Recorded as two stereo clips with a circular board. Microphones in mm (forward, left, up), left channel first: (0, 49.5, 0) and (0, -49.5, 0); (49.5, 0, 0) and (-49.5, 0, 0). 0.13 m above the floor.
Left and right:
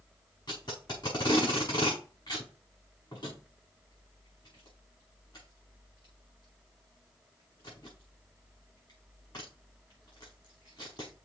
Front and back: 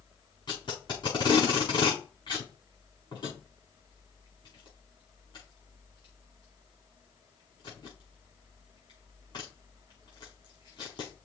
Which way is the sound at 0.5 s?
45° left.